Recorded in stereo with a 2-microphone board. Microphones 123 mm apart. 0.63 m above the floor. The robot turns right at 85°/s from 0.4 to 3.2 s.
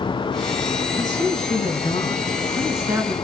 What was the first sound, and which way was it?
A woman speaking, 30° left.